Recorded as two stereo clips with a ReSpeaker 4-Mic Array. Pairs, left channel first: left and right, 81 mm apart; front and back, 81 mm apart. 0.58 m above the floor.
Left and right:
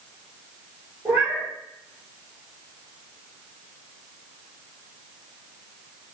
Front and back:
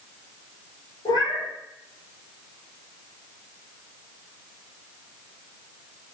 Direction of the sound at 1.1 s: 20° right.